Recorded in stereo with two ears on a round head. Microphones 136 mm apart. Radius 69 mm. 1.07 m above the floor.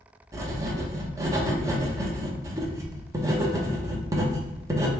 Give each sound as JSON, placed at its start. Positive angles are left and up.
{"t": 0.3, "sound": "writing", "side_deg": -20, "distance_m": 0.6}